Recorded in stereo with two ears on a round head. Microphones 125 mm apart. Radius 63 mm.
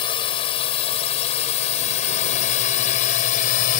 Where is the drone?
40° left (ahead or behind); by 3.8 s 60° left (ahead or behind).